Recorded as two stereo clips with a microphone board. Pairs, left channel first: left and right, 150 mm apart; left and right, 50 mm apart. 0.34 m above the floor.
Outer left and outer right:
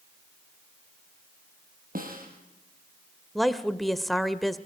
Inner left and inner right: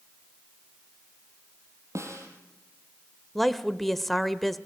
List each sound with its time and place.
1.9 s a snare drum: 70° right (ahead or behind), 4 m
3.4 s a woman speaking: centre (ahead or behind), 0.9 m